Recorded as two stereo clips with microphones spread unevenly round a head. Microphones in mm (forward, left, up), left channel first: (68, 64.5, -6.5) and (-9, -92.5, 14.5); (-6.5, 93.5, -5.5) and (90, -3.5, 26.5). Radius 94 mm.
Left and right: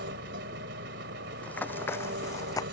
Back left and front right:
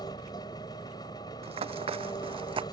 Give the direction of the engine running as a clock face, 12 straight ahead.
5 o'clock.